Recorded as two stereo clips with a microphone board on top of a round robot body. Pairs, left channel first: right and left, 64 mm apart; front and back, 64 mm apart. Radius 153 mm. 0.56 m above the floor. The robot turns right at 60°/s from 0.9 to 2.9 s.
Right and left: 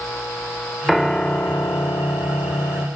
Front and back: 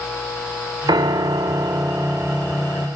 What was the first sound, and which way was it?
A piano, straight behind.